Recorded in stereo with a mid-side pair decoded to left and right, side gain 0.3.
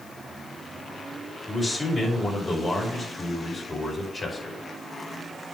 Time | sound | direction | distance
1.5 | a man speaking | 40° left | 5 m